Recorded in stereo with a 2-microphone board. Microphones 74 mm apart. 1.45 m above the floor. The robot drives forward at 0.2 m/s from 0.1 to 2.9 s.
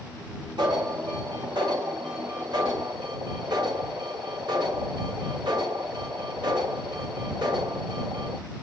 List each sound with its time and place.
0.6 s an alarm: 85° right, 4 m